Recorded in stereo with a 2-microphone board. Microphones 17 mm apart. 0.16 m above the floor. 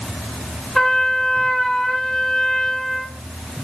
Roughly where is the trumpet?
Left.